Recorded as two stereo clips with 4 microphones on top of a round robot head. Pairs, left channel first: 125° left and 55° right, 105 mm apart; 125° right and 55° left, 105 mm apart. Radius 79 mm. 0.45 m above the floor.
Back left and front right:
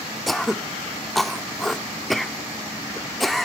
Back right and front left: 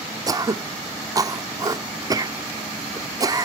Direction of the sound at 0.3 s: 40° left.